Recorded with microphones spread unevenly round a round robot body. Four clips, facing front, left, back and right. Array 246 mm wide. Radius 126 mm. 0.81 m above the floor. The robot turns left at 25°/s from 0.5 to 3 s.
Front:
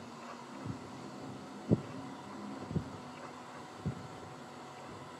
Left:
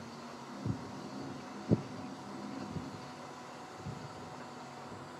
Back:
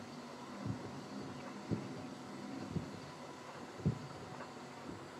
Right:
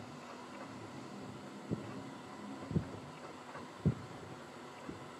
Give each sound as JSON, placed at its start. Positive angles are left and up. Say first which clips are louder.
{"t": 0.7, "sound": "footsteps", "louder": "left 6 dB, back 1 dB", "azimuth_deg": 90, "distance_m": 1.6}